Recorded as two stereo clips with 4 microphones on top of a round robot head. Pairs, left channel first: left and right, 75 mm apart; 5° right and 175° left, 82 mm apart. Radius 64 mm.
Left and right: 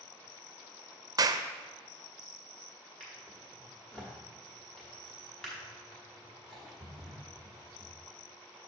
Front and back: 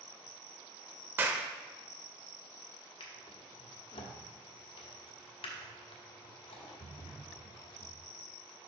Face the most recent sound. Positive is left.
turn(degrees=5)